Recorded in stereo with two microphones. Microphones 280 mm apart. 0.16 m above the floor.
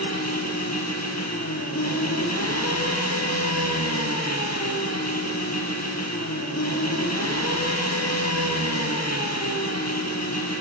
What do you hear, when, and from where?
0.0 s an engine running: 65° left (ahead or behind), 2.5 m